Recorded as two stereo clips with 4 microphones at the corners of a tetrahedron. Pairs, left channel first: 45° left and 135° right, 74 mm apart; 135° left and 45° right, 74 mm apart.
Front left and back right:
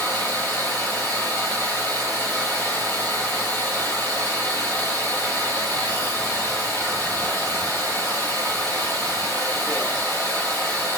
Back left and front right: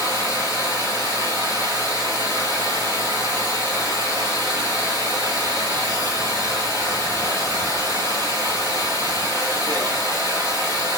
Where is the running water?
10° right, 1.6 m.